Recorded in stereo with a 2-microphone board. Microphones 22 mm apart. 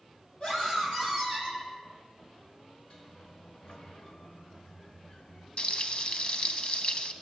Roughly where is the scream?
Left.